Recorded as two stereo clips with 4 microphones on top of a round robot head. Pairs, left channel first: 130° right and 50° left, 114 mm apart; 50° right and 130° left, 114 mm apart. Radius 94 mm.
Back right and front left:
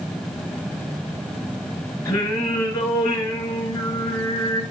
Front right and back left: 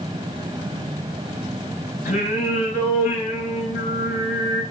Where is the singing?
65° right, 4.5 m.